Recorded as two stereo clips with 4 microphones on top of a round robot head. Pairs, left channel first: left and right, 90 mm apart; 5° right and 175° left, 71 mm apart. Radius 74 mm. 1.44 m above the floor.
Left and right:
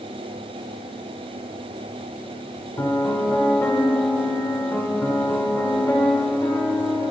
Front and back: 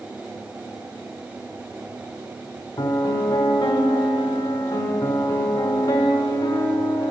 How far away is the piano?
About 0.8 m.